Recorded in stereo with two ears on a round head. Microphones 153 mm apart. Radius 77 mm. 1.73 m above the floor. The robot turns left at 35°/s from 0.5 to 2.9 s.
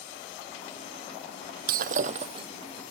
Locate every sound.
1.7 s breaking glass: 55° right (ahead or behind); by 2.5 s 30° right (ahead or behind)